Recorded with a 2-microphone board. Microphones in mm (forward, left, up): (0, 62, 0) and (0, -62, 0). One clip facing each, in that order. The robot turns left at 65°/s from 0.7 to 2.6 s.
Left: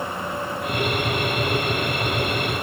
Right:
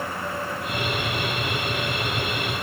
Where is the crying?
No crying in this recording.